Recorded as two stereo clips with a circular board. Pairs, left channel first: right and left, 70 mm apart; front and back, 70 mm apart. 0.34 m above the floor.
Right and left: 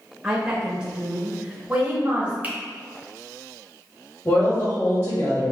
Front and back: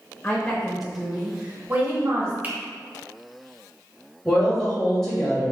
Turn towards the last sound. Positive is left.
turn(degrees=-80)